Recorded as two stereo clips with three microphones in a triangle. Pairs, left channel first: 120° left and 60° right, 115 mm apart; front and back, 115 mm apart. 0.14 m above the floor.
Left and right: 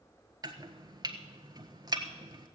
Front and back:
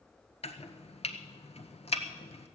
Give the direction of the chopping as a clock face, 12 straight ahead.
12 o'clock.